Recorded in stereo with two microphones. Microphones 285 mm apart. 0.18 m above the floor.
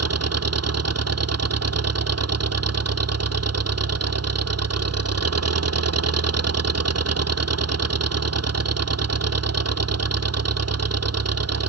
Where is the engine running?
60° right (ahead or behind).